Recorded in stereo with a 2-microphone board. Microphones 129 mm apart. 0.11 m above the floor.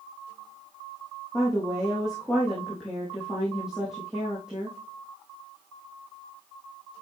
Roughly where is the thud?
No thud in this recording.